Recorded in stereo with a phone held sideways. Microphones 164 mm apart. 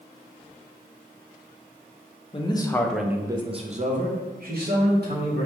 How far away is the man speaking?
About 0.6 m.